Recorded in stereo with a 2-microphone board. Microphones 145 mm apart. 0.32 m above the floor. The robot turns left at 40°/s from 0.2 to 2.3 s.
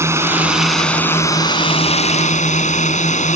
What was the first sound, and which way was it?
A drone, 160° right.